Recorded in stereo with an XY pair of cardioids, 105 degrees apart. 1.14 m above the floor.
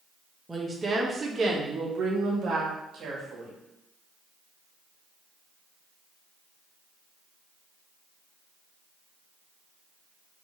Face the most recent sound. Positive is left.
turn(degrees=-65)